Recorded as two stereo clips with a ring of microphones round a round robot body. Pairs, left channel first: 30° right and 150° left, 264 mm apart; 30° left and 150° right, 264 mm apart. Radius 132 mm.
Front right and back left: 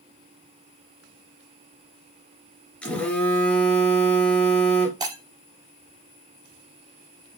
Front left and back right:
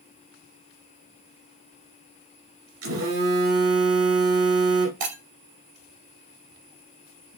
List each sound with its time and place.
2.8 s a phone buzzing: 115° right, 2.5 m
5.0 s breaking glass: 135° right, 2.5 m